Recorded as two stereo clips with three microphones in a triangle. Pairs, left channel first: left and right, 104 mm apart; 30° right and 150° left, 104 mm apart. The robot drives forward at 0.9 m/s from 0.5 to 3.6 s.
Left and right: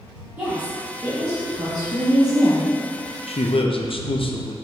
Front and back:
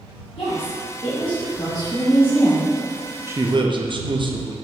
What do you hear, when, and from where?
0.4 s a woman speaking: 20° right, 1.9 m; by 2.6 s 120° right, 1.0 m
3.3 s a man speaking: 85° left, 0.5 m; by 4.6 s 115° left, 0.6 m